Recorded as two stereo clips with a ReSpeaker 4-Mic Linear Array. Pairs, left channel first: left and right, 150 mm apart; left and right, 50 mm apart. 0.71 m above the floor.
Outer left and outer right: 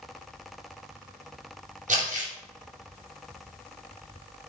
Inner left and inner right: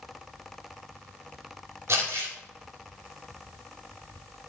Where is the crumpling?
55° right (ahead or behind), 2.5 m.